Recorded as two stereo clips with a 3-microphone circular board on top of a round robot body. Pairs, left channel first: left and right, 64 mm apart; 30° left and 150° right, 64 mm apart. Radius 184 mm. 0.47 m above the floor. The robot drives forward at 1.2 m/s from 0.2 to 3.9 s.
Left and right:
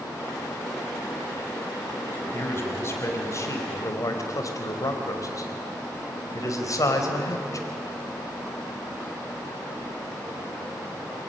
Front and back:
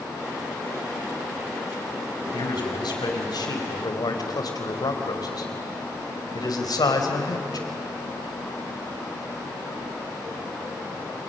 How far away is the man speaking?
About 5 m.